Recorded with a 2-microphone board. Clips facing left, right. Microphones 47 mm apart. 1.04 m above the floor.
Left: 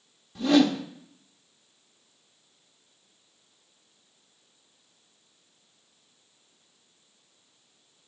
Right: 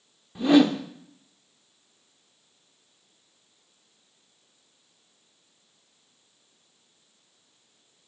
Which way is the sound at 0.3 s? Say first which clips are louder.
Right 2 dB; 15° right (ahead or behind).